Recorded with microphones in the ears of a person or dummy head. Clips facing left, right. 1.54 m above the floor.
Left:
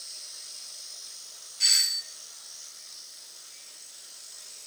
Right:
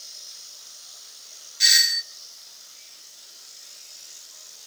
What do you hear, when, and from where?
1.6 s a doorbell: 20° right (ahead or behind), 0.7 m